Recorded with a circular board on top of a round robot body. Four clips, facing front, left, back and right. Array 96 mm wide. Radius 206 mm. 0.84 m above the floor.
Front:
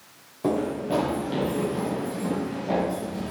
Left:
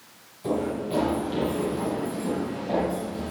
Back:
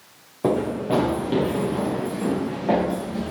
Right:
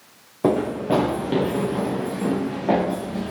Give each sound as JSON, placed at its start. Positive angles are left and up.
{"t": 0.4, "sound": "running footsteps", "azimuth_deg": -105, "distance_m": 5.5}